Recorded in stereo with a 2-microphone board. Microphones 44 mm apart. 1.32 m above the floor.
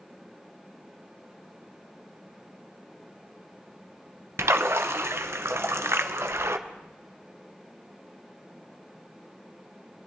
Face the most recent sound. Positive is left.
turn(degrees=-70)  # may be behind; listen again after turning